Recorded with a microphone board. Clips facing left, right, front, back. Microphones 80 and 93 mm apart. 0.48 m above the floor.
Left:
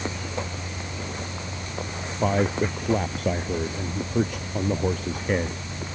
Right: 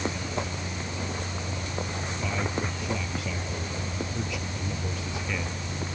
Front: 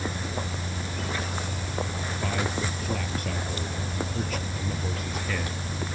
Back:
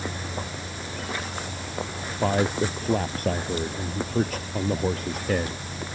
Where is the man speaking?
130° left.